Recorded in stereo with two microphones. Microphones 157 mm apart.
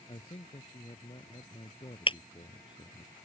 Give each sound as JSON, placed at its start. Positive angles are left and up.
{"t": 0.1, "sound": "a man speaking", "side_deg": 35}
{"t": 2.1, "sound": "breaking glass", "side_deg": 35}